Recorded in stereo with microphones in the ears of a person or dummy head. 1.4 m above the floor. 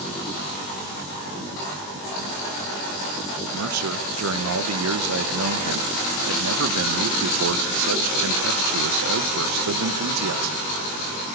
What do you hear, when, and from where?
3.5 s a man speaking: 80° right, 1.4 m